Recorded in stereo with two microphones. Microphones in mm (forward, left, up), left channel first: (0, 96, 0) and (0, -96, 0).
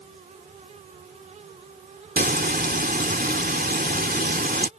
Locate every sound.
2.2 s frying: 50° right (ahead or behind)